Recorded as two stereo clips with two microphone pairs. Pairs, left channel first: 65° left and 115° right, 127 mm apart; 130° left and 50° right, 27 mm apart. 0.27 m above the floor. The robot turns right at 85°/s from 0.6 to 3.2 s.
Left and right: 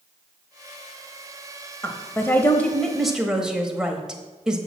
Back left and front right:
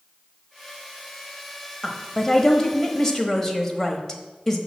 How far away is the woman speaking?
About 0.9 m.